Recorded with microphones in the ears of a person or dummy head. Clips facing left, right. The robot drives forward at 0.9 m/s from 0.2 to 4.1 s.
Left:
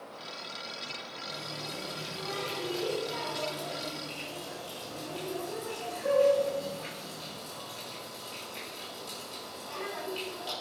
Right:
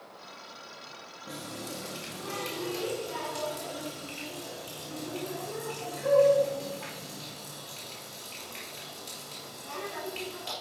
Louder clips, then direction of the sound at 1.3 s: Right 3 dB; 60° right (ahead or behind).